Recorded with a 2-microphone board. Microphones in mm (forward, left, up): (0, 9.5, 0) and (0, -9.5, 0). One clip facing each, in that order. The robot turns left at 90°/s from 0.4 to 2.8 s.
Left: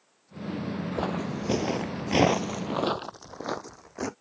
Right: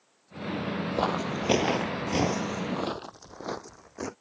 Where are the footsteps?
25° right (ahead or behind); by 4.1 s 10° left (ahead or behind).